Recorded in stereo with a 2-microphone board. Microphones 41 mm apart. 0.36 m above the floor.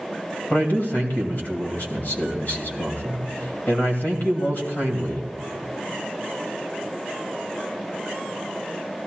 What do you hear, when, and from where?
0.5 s a man speaking: 45° left (ahead or behind), 2 m